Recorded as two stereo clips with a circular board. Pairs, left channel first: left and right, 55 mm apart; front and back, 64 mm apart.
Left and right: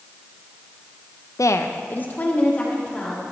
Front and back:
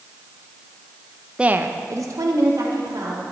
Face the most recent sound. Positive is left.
turn(degrees=160)